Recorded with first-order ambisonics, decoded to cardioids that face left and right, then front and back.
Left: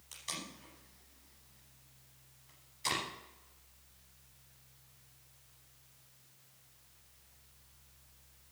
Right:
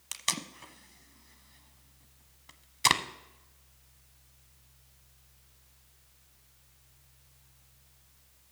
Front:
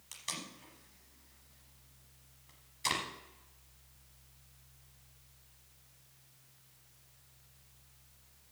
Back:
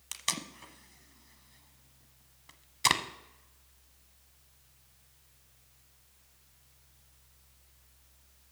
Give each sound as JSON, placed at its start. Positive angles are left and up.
{"t": 0.1, "sound": "tape being pulled", "azimuth_deg": -125, "distance_m": 0.9}